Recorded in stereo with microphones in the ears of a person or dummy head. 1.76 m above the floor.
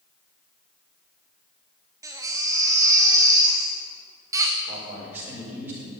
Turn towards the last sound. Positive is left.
turn(degrees=-10)  # may be behind; listen again after turning